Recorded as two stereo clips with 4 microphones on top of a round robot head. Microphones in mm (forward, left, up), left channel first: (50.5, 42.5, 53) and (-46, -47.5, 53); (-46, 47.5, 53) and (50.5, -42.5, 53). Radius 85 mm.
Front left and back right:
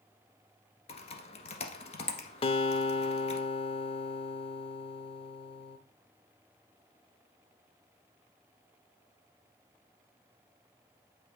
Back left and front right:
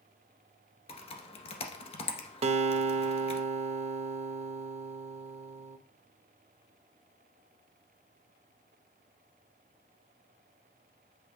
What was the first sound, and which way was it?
Typing on a keyboard, 90° left.